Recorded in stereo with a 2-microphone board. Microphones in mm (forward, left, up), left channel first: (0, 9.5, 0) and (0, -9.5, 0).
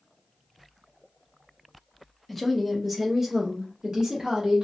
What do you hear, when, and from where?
2.3 s a woman speaking: 5° left (ahead or behind), 1.2 m; by 4.6 s 50° right (ahead or behind), 1.6 m